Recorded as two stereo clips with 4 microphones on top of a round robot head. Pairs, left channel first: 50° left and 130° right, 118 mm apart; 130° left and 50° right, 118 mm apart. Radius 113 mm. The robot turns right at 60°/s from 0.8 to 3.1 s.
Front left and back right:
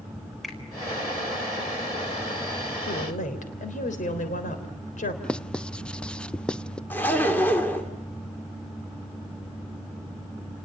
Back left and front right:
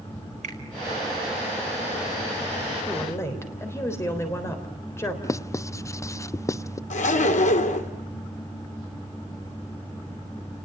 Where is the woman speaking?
45° left, 3.5 m; by 5.1 s 60° left, 3.5 m.